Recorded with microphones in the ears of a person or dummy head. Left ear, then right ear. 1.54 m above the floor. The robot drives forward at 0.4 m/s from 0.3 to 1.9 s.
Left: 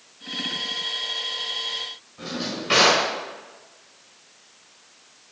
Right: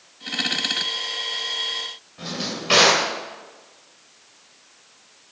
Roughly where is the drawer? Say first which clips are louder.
Right 1 dB; centre.